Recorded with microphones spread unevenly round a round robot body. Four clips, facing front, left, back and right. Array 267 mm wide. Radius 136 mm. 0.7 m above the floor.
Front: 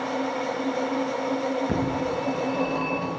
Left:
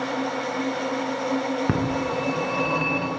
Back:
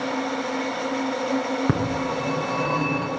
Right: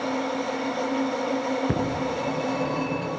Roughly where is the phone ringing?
Behind left.